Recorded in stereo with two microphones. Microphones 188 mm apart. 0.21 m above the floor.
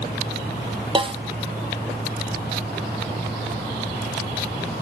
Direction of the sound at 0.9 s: 30° right (ahead or behind).